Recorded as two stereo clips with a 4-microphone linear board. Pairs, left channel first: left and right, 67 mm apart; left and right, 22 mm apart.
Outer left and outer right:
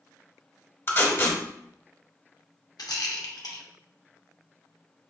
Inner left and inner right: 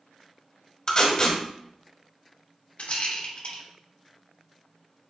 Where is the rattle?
65° left (ahead or behind), 0.8 m.